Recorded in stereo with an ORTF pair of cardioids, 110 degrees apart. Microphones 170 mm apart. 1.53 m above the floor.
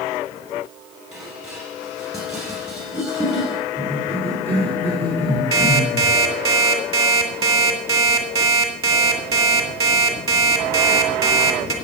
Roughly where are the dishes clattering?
Ahead.